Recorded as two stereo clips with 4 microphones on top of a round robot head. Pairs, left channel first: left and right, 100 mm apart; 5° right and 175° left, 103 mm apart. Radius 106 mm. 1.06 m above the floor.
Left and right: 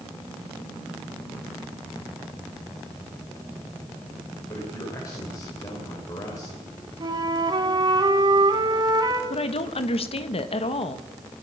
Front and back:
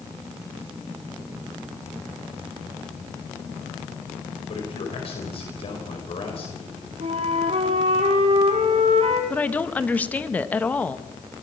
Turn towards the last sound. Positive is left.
turn(degrees=70)